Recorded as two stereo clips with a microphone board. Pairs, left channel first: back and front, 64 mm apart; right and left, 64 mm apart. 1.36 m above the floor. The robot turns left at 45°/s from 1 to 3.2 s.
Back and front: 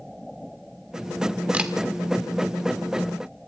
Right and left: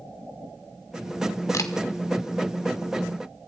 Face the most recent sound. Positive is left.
turn(degrees=-140)